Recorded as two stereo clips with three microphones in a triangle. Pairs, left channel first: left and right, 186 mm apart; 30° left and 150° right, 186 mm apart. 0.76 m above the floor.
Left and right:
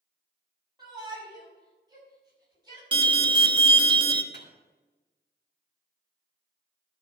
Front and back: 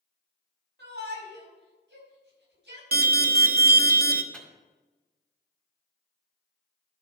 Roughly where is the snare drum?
I don't hear a snare drum.